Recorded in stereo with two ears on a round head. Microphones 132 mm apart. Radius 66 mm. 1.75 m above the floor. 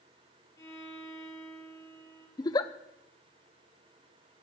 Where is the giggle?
25° left (ahead or behind), 0.6 m.